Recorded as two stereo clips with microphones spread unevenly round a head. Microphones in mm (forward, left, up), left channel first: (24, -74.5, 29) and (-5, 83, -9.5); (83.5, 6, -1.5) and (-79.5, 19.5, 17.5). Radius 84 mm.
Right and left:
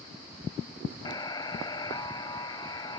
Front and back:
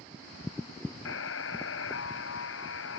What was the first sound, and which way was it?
A buzzer, 15° right.